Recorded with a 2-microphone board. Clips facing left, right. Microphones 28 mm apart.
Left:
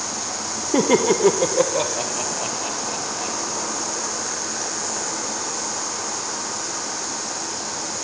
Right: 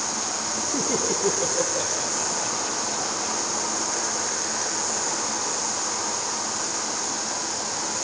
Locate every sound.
0.7 s laughter: 70° left (ahead or behind), 0.6 m; by 3.8 s 35° left (ahead or behind), 2 m